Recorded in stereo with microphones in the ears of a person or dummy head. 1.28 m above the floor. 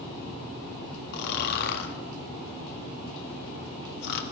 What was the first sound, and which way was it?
Snoring, 55° left (ahead or behind).